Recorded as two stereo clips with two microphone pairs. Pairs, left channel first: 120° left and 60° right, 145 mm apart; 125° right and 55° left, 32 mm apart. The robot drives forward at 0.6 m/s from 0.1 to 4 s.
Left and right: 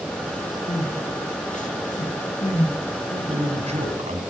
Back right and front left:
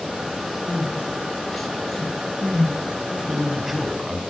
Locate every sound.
0.7 s crying: 145° left, 3 m; by 2.7 s 155° left, 4 m
3.1 s a man speaking: 25° right, 2.5 m; by 4.2 s 30° right, 1.9 m